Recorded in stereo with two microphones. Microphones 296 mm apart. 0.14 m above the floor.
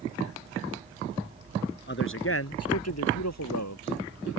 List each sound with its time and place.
1.9 s a man speaking: 40° left (ahead or behind); by 4.3 s 70° left (ahead or behind)